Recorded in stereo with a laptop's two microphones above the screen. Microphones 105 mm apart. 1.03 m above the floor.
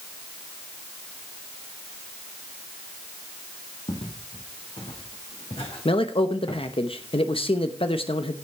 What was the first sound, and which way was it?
Footsteps, 70° left (ahead or behind).